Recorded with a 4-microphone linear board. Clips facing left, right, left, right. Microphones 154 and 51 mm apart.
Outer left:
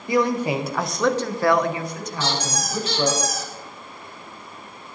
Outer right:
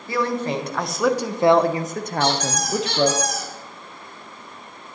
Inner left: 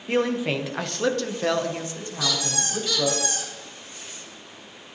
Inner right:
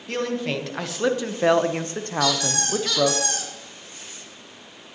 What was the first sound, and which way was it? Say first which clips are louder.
A man speaking: outer left 3 dB, inner left 3 dB; 15° left (ahead or behind).